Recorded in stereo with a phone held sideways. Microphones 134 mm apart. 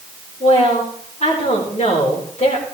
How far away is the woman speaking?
About 4 m.